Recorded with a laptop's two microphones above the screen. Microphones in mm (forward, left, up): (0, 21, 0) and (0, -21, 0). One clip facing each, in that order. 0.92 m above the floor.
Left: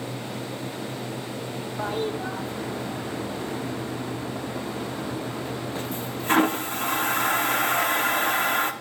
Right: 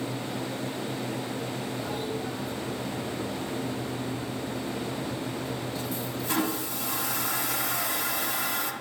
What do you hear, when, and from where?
1.8 s a toilet flushing: 45° left (ahead or behind), 0.5 m